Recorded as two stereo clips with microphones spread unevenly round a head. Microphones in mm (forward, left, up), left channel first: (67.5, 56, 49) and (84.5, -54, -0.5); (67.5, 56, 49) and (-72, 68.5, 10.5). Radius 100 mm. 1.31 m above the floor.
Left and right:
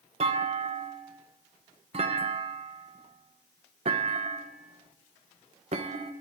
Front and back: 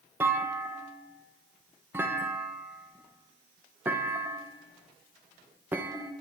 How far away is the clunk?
About 1.1 m.